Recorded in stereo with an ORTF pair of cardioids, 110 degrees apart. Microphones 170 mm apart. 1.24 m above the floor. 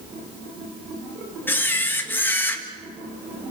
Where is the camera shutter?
10° left, 1.9 m.